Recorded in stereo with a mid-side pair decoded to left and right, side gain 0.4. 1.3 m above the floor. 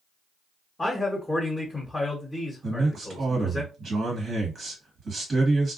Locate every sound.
0.8 s a man speaking: 15° left, 1.1 m
2.6 s a man speaking: 55° right, 1.6 m